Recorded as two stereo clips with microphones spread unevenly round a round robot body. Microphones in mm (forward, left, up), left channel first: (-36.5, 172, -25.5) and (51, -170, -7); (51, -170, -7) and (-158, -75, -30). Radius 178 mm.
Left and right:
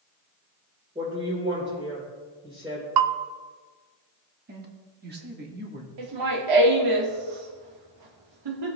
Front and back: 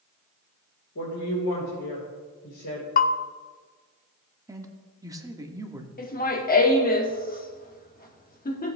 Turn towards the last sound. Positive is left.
turn(degrees=-75)